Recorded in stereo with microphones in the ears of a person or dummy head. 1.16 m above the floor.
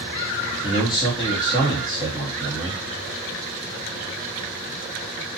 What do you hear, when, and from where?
0.6 s a man speaking: 15° left (ahead or behind), 1.1 m